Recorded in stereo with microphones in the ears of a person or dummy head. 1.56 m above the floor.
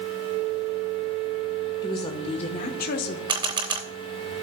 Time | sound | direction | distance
1.8 | a woman speaking | 25° left (ahead or behind) | 1.4 m
3.3 | a camera shutter | 25° right (ahead or behind) | 0.9 m